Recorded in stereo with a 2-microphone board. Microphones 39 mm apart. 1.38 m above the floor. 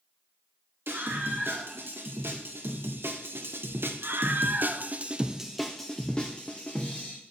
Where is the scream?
70° right (ahead or behind), 3 m; by 7.2 s 40° left (ahead or behind), 1.5 m.